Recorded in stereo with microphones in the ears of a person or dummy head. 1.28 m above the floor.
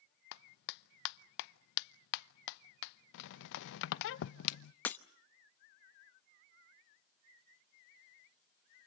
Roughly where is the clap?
Left.